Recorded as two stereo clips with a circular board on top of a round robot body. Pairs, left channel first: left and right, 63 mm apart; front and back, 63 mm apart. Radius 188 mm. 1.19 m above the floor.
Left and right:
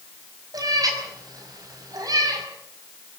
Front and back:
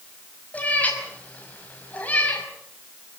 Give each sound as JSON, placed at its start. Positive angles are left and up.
{"t": 0.5, "sound": "a cat meowing", "azimuth_deg": -65, "distance_m": 5.5}